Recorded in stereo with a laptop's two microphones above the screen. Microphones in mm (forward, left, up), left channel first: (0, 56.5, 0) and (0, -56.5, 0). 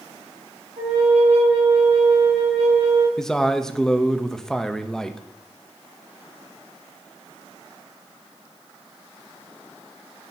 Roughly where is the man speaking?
Centre.